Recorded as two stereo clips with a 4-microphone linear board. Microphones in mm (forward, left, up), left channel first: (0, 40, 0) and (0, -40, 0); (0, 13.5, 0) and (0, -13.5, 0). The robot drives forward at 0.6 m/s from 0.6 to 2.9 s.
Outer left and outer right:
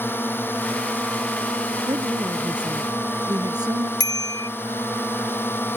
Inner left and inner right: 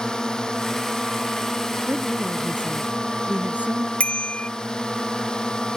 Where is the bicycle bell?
60° left (ahead or behind).